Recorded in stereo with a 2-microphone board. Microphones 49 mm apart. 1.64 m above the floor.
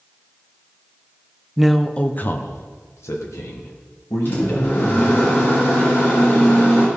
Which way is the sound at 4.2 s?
45° left (ahead or behind).